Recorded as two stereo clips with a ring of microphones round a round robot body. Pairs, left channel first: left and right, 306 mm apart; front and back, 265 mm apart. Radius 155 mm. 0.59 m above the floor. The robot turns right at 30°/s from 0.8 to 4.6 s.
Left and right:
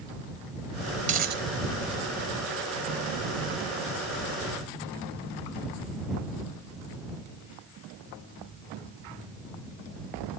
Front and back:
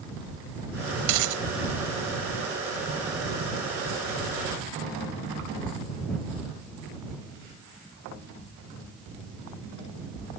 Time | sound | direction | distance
1.0 | a dropped coin | 160° right | ?